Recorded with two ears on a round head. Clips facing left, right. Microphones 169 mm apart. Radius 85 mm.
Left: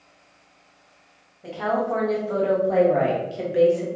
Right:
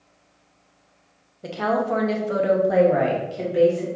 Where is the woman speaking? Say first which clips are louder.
Right 1 dB; 55° right (ahead or behind), 0.9 m; by 3.9 s 20° left (ahead or behind), 1.0 m.